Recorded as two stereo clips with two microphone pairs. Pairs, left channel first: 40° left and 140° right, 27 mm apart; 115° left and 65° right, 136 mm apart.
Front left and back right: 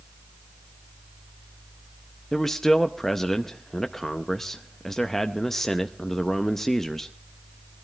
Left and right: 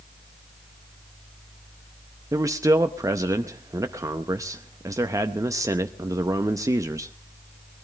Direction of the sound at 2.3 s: 30° right.